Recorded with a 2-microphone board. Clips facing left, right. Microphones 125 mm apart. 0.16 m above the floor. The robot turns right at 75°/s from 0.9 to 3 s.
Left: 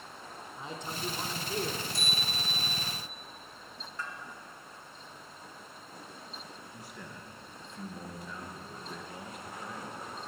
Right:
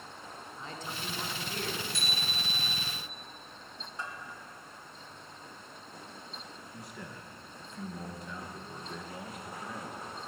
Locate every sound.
0.6 s a man speaking: 20° left (ahead or behind), 1.2 m
1.9 s a bicycle bell: 105° right, 4.5 m; by 2.8 s 40° right, 4.5 m
4.0 s a bell: 15° right (ahead or behind), 1.9 m
6.7 s a man speaking: centre (ahead or behind), 2 m